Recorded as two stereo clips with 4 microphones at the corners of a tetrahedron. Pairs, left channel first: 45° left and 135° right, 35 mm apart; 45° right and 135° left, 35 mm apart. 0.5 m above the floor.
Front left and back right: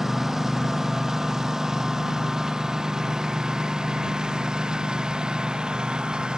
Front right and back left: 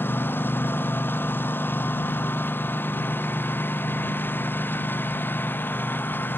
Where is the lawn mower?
50° right; by 6.4 s 65° right.